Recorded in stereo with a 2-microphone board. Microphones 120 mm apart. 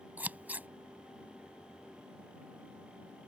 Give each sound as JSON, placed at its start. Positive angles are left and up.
{"t": 0.2, "sound": "scissors", "side_deg": -15}